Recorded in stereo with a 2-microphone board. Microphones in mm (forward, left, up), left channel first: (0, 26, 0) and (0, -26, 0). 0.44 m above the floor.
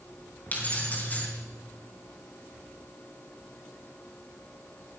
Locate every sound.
0.5 s keys jangling: 30° left (ahead or behind), 3 m